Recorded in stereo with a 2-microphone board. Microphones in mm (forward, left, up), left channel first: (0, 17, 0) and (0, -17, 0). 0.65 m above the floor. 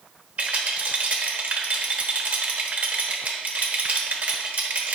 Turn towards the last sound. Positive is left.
turn(degrees=-50)  # may be behind; listen again after turning